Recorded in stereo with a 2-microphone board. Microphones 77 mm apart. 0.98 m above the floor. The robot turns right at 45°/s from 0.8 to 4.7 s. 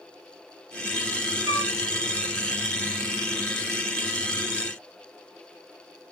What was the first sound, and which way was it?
A flute, 55° right (ahead or behind).